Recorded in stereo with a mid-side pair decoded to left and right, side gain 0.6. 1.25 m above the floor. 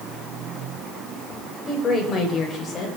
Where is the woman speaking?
30° left, 7.5 m; by 2.9 s 45° left, 6.5 m.